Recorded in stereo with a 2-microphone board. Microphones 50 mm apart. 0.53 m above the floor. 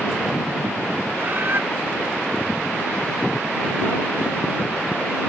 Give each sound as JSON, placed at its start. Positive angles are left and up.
{"t": 1.2, "sound": "a bird", "side_deg": -45}